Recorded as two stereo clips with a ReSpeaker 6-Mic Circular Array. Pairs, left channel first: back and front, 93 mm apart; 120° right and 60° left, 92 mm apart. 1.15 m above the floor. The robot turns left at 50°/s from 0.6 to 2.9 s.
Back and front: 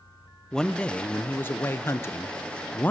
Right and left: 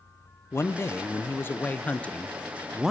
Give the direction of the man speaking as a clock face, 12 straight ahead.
4 o'clock.